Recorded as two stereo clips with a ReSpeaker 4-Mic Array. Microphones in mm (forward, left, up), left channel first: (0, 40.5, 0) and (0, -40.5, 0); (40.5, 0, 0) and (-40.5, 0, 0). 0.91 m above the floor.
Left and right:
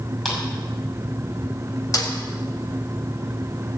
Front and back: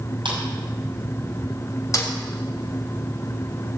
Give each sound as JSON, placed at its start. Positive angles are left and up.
{"t": 0.2, "sound": "a clap", "azimuth_deg": 175, "distance_m": 6.0}
{"t": 1.9, "sound": "a snare drum", "azimuth_deg": 45, "distance_m": 3.0}